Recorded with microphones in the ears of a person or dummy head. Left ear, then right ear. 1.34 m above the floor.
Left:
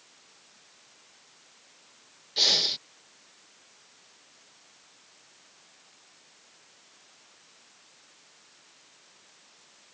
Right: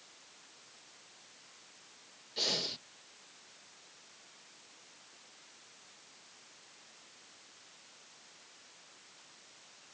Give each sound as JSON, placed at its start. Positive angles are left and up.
{"t": 2.4, "sound": "breathing", "side_deg": 30}